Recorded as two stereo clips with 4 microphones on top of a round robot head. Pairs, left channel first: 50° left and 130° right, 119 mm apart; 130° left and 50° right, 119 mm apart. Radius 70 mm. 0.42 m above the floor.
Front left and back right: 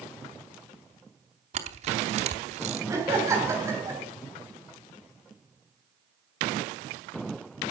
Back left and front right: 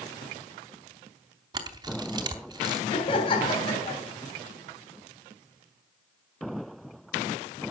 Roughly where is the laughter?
Behind.